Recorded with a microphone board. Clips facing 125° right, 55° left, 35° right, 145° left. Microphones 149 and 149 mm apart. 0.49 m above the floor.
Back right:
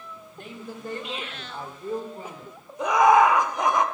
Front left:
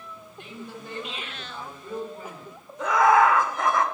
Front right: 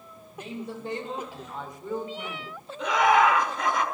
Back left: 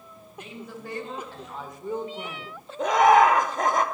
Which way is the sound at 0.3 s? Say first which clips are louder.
Back right 1 dB, front right 4 dB; 85° right.